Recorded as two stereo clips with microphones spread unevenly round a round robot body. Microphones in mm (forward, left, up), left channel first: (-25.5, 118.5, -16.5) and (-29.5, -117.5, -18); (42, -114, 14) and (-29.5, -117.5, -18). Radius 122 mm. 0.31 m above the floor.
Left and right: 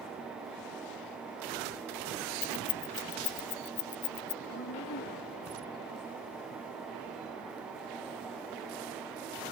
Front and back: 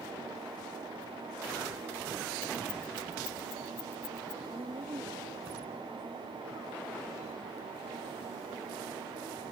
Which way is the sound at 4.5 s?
135° left.